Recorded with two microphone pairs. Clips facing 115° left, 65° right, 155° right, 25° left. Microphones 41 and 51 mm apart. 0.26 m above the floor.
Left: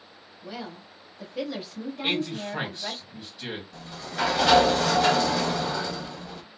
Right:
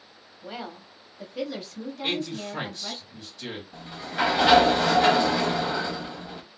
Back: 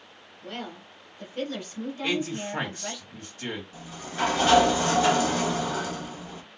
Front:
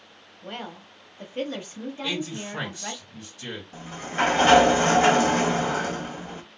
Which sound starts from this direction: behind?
A man speaking, at 2.0 s.